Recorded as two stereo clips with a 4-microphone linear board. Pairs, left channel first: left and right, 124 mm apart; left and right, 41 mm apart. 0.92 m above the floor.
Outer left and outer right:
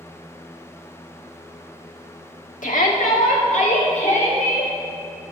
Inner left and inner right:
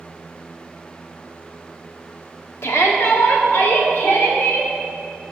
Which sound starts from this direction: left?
A shout, at 2.6 s.